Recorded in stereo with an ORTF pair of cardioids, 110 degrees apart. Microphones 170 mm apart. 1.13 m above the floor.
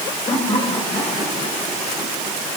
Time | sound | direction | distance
0.3 | laughter | 20° left | 7 m